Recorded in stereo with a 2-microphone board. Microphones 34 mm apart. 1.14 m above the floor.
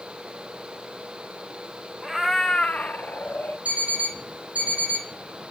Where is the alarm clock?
45° right (ahead or behind), 2.5 m.